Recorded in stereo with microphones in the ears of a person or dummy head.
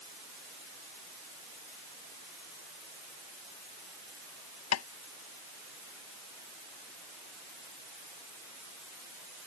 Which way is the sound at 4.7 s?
85° left.